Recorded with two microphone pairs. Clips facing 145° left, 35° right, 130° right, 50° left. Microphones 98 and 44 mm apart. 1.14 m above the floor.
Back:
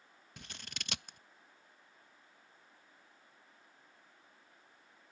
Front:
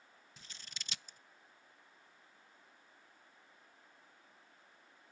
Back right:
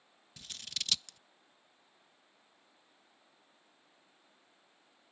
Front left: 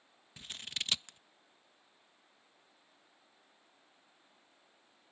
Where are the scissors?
115° left.